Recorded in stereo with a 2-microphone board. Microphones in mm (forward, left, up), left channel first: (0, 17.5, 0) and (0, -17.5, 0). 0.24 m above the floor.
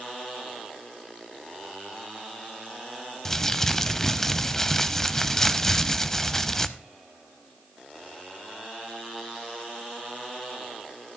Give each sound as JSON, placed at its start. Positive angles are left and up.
{"t": 3.2, "sound": "crumpling", "side_deg": 15, "distance_m": 0.5}